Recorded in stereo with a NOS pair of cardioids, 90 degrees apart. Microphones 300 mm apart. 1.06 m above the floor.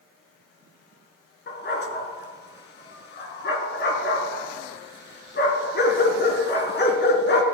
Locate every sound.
1.5 s a dog barking: 35° left, 4 m